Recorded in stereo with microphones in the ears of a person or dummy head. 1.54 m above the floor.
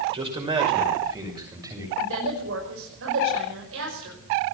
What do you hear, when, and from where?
0.1 s a man speaking: 30° right (ahead or behind), 6 m; by 1.9 s 20° right (ahead or behind), 8 m
2.0 s a woman speaking: 75° right (ahead or behind), 5.5 m